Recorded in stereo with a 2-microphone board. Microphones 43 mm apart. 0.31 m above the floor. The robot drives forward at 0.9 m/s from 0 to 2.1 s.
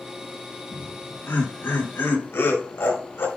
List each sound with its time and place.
0.7 s laughter: 70° left (ahead or behind), 4 m